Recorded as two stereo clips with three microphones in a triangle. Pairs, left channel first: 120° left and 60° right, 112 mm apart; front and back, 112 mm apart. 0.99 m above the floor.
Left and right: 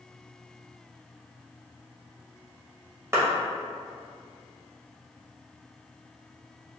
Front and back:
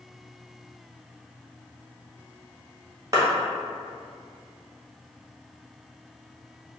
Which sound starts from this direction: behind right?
A clap, at 3.1 s.